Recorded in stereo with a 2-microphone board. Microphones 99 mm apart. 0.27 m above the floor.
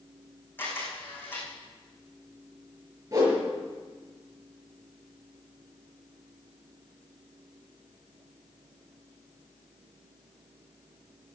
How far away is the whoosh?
About 5 m.